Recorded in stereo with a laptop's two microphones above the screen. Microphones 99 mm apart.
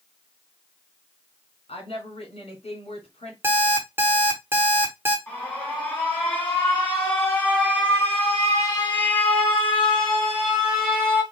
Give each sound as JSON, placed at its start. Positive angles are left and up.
{"t": 1.7, "sound": "a woman speaking", "side_deg": 75, "distance_m": 2.0}
{"t": 3.4, "sound": "an alarm clock", "side_deg": -20, "distance_m": 1.0}
{"t": 5.3, "sound": "an alarm", "side_deg": 20, "distance_m": 2.5}